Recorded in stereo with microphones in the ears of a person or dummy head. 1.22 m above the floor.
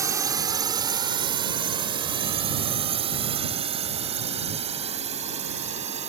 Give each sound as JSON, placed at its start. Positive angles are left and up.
{"t": 0.0, "sound": "a drone", "side_deg": -10}